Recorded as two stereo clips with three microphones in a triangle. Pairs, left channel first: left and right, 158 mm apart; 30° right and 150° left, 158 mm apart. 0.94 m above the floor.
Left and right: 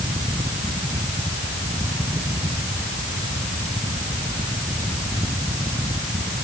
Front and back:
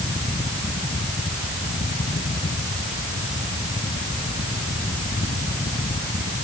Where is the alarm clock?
I don't hear an alarm clock.